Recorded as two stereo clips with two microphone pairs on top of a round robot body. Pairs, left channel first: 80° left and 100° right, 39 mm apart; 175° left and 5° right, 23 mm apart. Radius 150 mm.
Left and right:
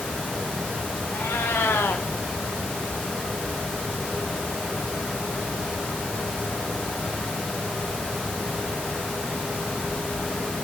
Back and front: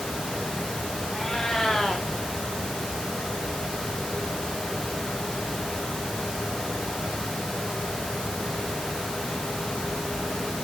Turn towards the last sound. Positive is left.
turn(degrees=110)